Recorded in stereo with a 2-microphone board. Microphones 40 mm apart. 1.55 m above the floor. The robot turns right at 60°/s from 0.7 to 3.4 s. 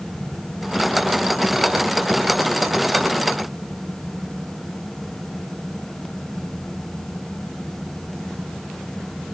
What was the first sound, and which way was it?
Only background noise.